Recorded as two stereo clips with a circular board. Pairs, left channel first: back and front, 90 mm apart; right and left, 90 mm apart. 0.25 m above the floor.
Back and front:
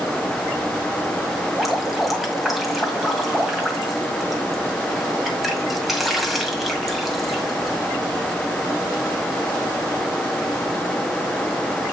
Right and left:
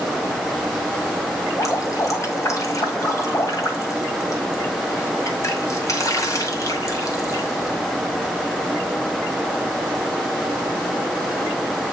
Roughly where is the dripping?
Right.